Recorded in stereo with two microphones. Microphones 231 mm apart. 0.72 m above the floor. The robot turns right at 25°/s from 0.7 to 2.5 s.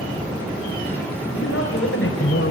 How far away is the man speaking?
About 3.5 m.